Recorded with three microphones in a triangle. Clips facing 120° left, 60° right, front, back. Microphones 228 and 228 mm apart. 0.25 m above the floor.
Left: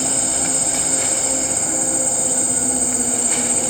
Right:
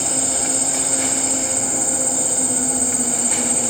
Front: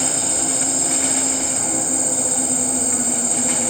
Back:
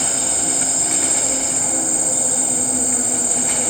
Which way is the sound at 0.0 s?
105° left.